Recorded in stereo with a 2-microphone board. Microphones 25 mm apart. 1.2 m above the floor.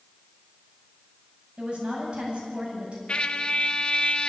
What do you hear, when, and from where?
1.6 s a woman speaking: 40° right (ahead or behind), 9.5 m
3.1 s a trumpet: 40° left (ahead or behind), 0.7 m